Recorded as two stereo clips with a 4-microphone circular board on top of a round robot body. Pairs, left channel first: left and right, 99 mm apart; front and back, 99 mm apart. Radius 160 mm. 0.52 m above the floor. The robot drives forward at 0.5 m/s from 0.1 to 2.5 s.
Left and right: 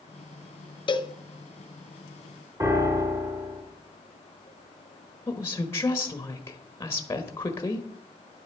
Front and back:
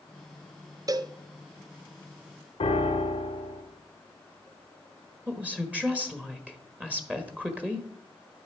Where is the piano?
30° right, 1.3 m.